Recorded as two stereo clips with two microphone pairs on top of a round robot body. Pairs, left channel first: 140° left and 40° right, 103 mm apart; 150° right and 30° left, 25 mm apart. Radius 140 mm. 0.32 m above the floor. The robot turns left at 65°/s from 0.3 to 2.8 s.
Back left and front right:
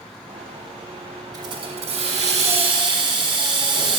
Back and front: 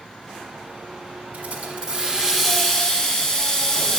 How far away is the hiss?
About 1.1 m.